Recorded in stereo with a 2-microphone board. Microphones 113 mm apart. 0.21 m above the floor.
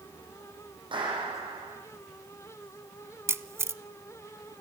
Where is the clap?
45° right (ahead or behind), 9.5 m.